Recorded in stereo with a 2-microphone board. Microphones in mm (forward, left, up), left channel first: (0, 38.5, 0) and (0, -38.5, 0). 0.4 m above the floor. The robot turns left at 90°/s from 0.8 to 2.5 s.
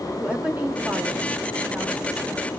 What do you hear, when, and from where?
0.2 s a woman speaking: 20° right (ahead or behind), 0.9 m; by 2.5 s 10° left (ahead or behind), 0.9 m